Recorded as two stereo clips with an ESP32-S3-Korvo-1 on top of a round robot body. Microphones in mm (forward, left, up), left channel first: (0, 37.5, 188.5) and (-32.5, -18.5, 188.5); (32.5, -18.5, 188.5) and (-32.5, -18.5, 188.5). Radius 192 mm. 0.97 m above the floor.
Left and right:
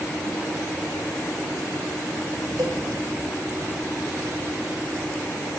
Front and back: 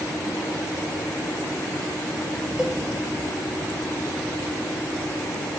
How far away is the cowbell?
About 2.5 m.